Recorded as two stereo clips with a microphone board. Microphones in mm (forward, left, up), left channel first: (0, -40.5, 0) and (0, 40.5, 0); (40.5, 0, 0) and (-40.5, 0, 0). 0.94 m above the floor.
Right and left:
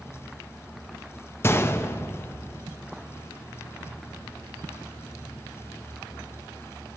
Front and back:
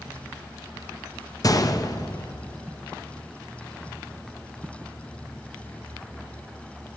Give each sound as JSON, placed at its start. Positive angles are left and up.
{"t": 1.4, "sound": "a gunshot", "azimuth_deg": -35, "distance_m": 0.6}